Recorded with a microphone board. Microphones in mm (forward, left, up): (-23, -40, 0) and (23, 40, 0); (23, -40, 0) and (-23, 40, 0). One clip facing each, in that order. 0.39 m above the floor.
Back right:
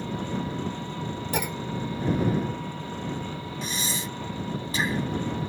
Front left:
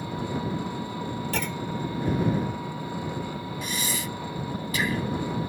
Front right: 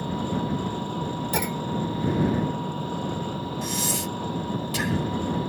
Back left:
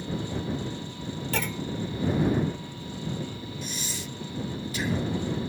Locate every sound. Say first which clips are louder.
0.0 s an engine running: even, front right 5 dB; 20° right
1.3 s a clunk: even, front right 3 dB; 85° right
3.6 s breathing: even, front right 8 dB; 60° right